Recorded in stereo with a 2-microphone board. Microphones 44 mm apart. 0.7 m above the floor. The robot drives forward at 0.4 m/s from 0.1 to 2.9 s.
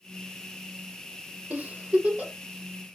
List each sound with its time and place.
1.5 s a giggle: 40° right (ahead or behind), 1.0 m; by 2.3 s 30° right (ahead or behind), 1.2 m